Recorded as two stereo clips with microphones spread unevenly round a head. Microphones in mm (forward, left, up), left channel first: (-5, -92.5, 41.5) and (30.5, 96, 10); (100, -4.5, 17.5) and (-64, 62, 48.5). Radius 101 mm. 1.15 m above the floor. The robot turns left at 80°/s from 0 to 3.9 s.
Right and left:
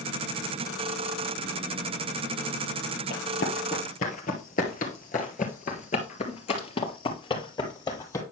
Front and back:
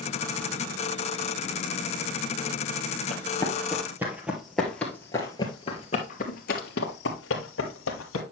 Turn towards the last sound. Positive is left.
turn(degrees=-35)